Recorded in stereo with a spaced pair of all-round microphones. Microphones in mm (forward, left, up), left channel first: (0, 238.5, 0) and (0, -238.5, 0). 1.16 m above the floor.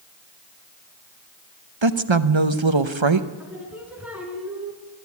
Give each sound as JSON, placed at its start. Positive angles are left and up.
{"t": 1.8, "sound": "a woman speaking", "side_deg": -70, "distance_m": 1.0}
{"t": 3.4, "sound": "singing", "side_deg": -5, "distance_m": 3.0}